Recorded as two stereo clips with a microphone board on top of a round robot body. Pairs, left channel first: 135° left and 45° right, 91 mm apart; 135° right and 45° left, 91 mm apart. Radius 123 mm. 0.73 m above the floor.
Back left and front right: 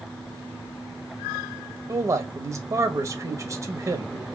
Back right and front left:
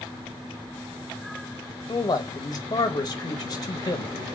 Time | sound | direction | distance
1.9 | a man speaking | 95° right | 0.8 m